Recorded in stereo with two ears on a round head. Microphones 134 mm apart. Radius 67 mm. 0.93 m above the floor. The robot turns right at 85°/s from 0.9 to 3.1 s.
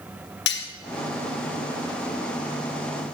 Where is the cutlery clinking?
80° left, 1.8 m.